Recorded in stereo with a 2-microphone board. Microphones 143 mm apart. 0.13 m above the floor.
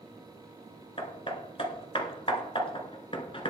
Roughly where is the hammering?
Left.